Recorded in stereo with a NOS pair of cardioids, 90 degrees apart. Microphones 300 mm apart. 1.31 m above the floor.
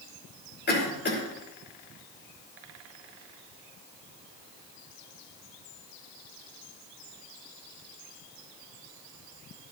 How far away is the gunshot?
I don't hear a gunshot.